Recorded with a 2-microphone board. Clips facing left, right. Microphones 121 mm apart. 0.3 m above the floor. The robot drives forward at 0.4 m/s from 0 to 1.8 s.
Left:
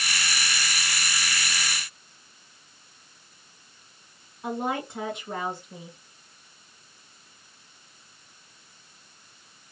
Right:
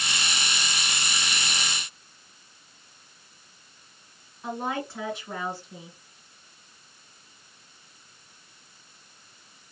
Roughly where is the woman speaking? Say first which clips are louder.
Left 2 dB; centre.